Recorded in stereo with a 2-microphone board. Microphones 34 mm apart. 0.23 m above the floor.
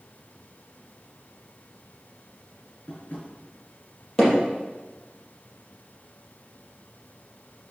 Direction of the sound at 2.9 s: 50° left (ahead or behind).